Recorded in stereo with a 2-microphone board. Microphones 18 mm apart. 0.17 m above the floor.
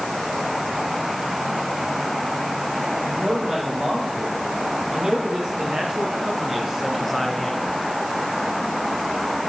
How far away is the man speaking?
About 7 m.